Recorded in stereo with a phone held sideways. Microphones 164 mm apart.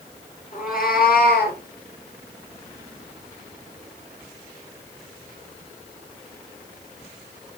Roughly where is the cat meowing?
Left.